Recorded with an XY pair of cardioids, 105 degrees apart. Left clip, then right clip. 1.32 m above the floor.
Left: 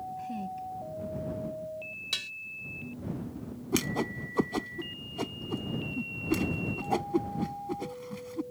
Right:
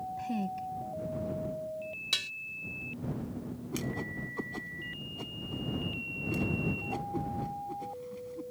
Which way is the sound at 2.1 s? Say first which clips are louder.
Right 2 dB; 10° right.